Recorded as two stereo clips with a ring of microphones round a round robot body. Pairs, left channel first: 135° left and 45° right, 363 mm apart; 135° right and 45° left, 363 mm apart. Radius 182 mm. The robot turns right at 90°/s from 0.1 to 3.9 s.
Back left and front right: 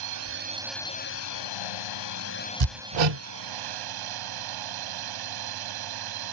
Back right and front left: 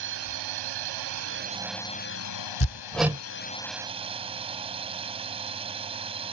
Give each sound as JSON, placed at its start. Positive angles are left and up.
{"t": 0.0, "sound": "a drone", "azimuth_deg": -10}
{"t": 2.6, "sound": "hammering", "azimuth_deg": -80}